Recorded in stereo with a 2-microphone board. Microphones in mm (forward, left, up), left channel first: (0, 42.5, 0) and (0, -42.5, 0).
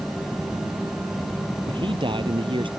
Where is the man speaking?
75° right (ahead or behind).